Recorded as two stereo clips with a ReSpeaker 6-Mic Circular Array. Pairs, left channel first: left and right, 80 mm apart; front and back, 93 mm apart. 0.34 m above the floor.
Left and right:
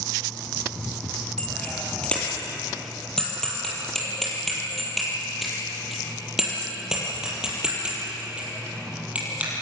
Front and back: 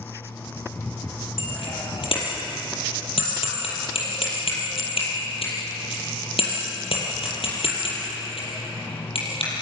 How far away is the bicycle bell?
About 7 m.